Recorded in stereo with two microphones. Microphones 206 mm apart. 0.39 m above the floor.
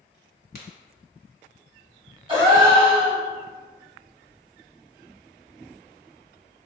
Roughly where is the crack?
Left.